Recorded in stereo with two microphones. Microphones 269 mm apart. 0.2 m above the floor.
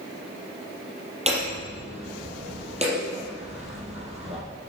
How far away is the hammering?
About 5 m.